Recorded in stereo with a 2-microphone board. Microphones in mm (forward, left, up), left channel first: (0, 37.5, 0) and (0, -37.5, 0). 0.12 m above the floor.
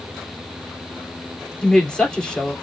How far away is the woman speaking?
About 2 m.